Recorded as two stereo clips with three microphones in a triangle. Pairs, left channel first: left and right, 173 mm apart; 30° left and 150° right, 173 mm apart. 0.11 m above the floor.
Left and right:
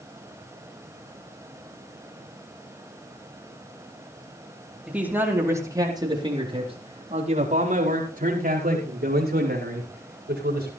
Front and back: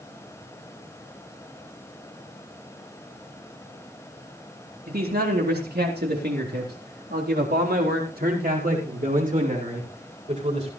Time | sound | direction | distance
4.9 | a man speaking | 175° right | 4 m